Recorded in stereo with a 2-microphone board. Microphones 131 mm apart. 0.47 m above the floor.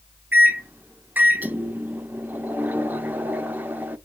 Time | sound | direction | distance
0.3 | a microwave | 15° right (ahead or behind) | 0.5 m